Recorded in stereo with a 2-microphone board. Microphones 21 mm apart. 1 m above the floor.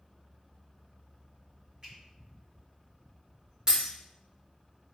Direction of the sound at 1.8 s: 30° right (ahead or behind).